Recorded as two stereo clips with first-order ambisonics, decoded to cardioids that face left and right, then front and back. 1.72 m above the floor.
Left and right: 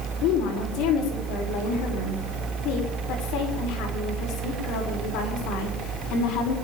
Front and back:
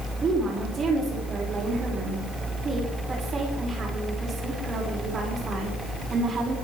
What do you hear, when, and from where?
0.2 s a woman speaking: 110° left, 6 m